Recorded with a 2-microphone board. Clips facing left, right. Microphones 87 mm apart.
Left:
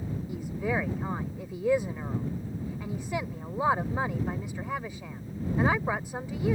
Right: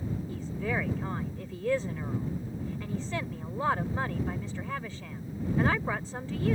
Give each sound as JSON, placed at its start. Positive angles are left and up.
{"t": 0.3, "sound": "a woman speaking", "side_deg": 15}